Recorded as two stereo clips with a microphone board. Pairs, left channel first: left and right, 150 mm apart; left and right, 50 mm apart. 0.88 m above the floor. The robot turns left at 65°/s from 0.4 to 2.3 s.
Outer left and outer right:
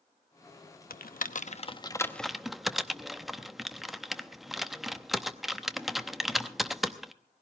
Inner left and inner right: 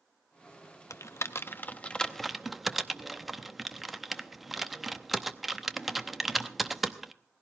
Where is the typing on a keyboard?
80° left, 0.8 m; by 7.1 s centre (ahead or behind), 0.8 m.